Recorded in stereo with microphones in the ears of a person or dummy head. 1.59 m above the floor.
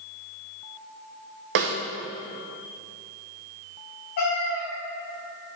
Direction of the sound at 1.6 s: 70° right (ahead or behind).